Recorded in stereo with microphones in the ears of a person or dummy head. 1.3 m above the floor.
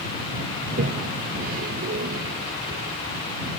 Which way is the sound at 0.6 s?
45° right (ahead or behind).